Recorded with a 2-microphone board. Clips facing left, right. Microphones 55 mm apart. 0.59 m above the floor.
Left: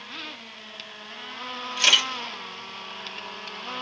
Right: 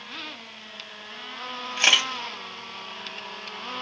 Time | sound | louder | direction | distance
1.8 | a camera shutter | right 1 dB | 30° right (ahead or behind) | 1.4 m